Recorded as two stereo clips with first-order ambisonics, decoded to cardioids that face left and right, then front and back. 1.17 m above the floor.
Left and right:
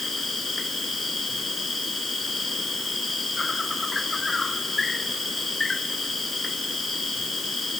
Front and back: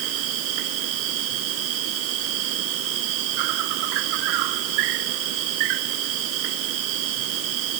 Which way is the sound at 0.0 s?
165° left.